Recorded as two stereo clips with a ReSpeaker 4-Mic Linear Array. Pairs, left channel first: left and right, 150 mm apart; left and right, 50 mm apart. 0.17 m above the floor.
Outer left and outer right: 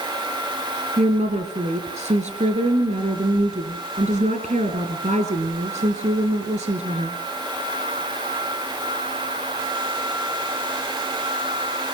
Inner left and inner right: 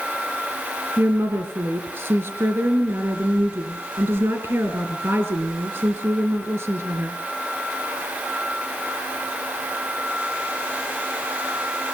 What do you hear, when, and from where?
1.0 s a woman speaking: 55° right (ahead or behind), 3 m